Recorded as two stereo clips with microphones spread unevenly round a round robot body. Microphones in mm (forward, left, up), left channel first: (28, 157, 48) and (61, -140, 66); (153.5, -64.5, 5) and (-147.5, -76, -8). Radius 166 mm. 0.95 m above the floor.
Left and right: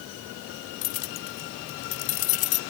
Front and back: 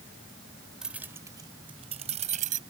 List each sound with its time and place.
0.8 s keys jangling: 95° left; by 2.6 s 115° left